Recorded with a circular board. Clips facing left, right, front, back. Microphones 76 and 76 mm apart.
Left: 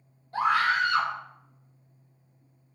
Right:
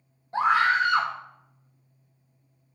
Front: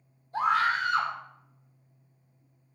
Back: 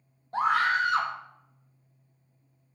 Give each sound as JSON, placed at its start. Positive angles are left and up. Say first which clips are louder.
{"t": 0.3, "sound": "a scream", "louder": "right 3 dB, back 1 dB", "azimuth_deg": -155, "distance_m": 1.9}